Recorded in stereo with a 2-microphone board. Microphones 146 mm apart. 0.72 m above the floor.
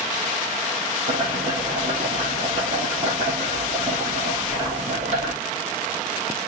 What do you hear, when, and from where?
1.1 s boiling: 55° right (ahead or behind), 4 m